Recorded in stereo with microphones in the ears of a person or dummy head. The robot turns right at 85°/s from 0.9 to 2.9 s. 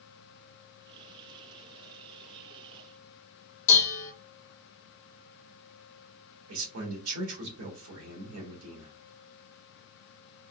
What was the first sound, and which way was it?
Dishes clattering, 45° left (ahead or behind).